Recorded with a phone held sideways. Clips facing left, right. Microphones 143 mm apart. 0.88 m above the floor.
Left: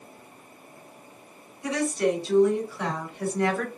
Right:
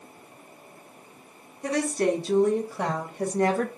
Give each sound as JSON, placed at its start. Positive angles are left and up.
{"t": 1.6, "sound": "a woman speaking", "side_deg": -50, "distance_m": 2.0}